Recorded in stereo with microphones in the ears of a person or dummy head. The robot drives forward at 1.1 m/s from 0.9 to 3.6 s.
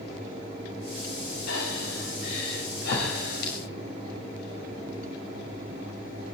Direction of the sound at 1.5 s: 75° left (ahead or behind).